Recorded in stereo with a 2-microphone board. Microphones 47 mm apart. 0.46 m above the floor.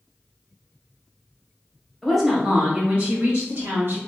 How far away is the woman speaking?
About 1.0 m.